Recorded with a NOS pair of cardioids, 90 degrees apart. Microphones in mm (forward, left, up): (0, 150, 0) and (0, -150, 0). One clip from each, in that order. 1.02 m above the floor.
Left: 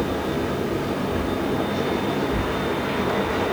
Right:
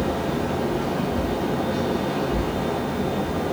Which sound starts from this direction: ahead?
A fan, at 0.0 s.